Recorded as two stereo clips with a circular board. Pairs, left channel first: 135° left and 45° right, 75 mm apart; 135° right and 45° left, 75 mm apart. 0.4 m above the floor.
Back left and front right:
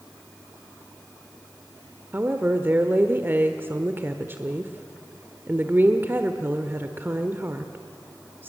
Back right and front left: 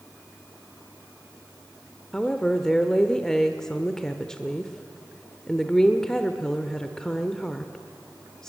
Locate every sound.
2.1 s a woman speaking: 60° right, 1.1 m